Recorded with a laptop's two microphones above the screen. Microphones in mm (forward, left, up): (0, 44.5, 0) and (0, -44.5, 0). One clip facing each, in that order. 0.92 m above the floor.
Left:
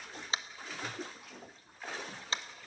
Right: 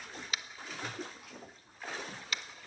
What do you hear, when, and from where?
0.3 s tapping: 30° left (ahead or behind), 0.8 m